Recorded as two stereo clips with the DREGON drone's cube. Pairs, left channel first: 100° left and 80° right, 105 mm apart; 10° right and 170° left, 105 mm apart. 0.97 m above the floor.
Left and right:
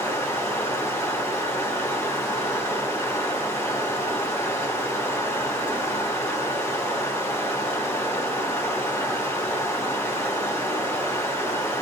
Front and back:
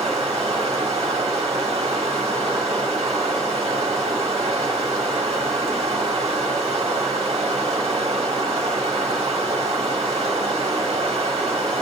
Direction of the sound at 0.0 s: 160° left.